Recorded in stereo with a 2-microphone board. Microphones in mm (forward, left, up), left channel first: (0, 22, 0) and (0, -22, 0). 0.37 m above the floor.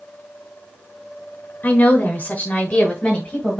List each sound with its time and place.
1.6 s a woman speaking: 40° left (ahead or behind), 1.0 m; by 3.6 s 20° left (ahead or behind), 1.4 m